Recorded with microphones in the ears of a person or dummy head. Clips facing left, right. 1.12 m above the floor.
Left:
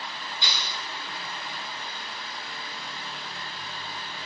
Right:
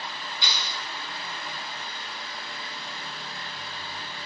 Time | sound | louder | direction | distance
0.4 | a clap | right 1 dB | 10° right (ahead or behind) | 9.5 m